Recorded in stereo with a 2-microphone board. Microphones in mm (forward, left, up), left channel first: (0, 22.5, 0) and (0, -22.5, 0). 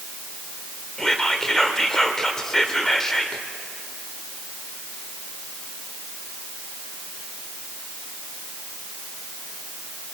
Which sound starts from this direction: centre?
Whispering, at 1.0 s.